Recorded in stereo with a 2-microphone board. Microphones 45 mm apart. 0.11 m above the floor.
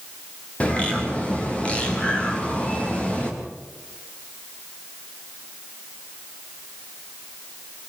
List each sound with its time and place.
0.6 s a bird: 25° left (ahead or behind), 6 m